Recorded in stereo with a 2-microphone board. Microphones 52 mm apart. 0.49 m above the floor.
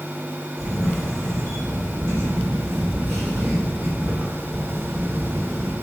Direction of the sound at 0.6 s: 60° right (ahead or behind).